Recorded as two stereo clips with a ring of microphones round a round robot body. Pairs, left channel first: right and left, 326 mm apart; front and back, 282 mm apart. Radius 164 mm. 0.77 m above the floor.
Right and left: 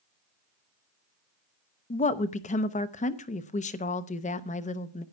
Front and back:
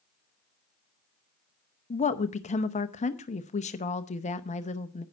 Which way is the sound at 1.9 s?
40° right.